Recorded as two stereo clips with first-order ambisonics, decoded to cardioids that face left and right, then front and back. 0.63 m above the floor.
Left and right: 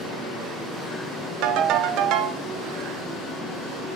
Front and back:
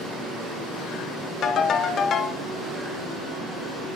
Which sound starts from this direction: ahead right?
A ringtone, at 1.4 s.